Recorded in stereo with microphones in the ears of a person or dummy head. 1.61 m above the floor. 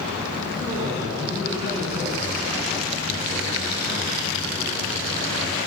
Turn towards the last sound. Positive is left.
turn(degrees=-25)  # may be behind; listen again after turning